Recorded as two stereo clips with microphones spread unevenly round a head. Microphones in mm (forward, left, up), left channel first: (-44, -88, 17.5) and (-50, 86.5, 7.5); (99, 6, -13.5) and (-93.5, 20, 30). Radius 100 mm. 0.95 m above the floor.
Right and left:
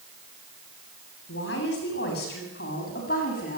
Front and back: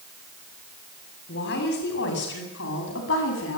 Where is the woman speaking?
45° right, 8 m; by 3.6 s 35° right, 9 m.